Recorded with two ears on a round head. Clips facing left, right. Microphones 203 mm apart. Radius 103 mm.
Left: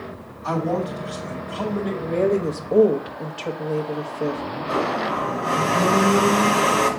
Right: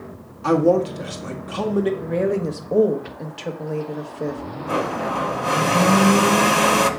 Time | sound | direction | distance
0.4 | a man speaking | 70° right (ahead or behind) | 1.7 m
2.0 | a woman speaking | 5° right (ahead or behind) | 1.1 m
4.7 | a blender | 40° right (ahead or behind) | 1.3 m